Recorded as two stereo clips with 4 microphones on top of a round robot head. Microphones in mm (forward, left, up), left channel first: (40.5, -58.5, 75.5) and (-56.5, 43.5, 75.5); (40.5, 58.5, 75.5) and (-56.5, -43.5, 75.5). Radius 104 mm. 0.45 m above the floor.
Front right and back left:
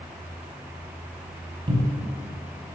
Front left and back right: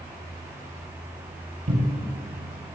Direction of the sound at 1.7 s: 170° right.